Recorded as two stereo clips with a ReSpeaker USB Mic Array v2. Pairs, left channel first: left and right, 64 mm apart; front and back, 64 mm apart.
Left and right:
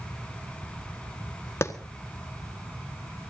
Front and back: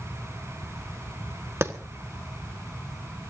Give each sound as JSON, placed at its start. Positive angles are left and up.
{"t": 1.6, "sound": "a clap", "azimuth_deg": 135, "distance_m": 1.5}